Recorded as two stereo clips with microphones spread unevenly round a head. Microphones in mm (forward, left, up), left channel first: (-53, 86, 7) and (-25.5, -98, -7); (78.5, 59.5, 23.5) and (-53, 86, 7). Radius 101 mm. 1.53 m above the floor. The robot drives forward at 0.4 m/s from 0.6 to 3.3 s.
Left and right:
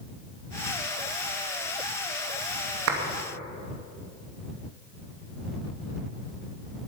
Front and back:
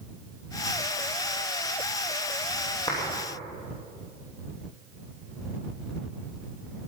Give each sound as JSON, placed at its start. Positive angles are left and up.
{"t": 2.9, "sound": "a clap", "azimuth_deg": -85, "distance_m": 2.5}